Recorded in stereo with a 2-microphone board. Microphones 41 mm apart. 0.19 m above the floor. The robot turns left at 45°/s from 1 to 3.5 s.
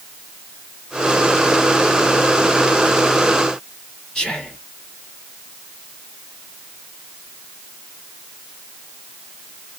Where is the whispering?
20° left (ahead or behind), 1.0 m.